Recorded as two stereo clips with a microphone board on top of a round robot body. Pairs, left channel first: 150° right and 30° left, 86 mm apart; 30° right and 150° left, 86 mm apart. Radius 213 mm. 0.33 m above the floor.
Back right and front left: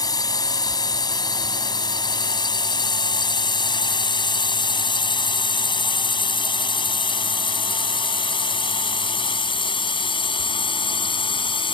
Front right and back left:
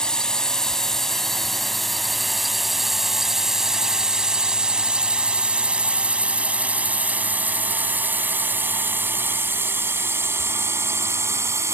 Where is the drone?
110° right; by 11.8 s 150° right.